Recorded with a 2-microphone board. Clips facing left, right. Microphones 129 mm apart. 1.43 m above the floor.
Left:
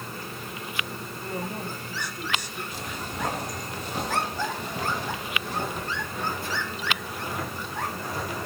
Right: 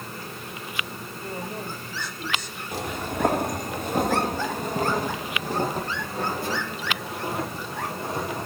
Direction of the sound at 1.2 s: 15° left (ahead or behind).